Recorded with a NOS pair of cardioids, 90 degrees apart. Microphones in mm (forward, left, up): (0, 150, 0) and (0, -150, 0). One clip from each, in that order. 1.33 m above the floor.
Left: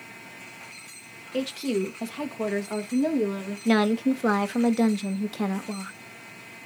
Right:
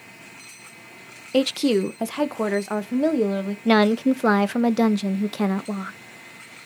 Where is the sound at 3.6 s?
30° right, 0.8 m.